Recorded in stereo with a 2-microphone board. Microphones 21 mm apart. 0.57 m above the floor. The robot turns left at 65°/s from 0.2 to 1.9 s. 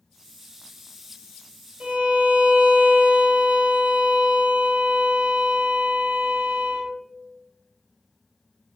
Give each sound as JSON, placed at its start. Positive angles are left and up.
{"t": 1.8, "sound": "a violin", "side_deg": -60, "distance_m": 0.6}